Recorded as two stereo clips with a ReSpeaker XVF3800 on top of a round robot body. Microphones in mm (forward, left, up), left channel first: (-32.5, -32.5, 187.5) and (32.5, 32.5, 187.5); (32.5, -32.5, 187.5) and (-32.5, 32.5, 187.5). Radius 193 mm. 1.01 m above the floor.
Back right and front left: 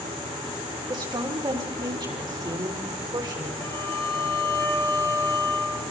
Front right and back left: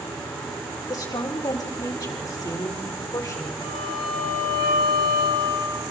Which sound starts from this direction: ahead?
A woman speaking, at 0.9 s.